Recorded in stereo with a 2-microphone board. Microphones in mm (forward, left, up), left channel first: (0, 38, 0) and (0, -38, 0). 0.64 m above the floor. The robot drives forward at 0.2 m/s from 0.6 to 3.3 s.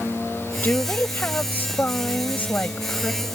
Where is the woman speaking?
25° left (ahead or behind).